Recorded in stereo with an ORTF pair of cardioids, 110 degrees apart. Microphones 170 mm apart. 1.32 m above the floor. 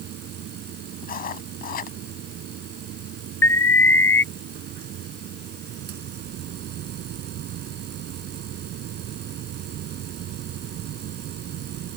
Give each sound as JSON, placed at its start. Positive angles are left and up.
{"t": 0.0, "sound": "a machine running", "azimuth_deg": -70}
{"t": 1.0, "sound": "writing", "azimuth_deg": 50}
{"t": 3.4, "sound": "an alarm", "azimuth_deg": 10}